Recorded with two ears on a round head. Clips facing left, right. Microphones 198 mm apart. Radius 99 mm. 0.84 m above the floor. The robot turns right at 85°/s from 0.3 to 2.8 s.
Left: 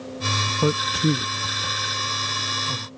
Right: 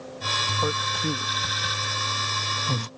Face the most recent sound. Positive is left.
turn(degrees=-50)  # may be behind; listen again after turning